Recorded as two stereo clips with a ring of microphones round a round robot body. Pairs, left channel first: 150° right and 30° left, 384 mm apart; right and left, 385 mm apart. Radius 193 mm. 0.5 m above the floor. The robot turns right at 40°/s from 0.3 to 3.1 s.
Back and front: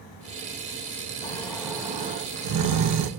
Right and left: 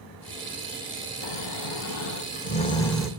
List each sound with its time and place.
1.2 s snoring: 70° right, 1.1 m; by 3.1 s 5° left, 1.1 m